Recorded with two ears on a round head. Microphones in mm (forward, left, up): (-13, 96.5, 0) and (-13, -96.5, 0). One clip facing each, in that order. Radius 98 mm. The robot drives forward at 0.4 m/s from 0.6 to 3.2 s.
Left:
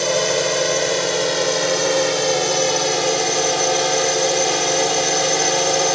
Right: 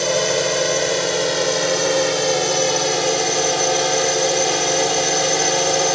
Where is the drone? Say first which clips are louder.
Even; centre (ahead or behind).